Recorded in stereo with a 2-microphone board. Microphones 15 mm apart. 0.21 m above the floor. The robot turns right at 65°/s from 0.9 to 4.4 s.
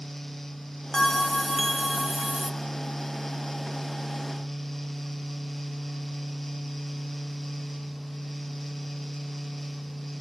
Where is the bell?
120° left, 0.8 m; by 2.5 s 140° right, 0.8 m.